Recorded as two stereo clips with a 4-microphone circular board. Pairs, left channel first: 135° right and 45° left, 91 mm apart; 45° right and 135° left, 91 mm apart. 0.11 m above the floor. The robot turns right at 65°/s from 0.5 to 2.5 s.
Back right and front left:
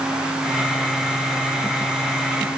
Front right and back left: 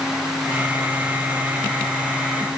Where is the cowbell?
No cowbell in this recording.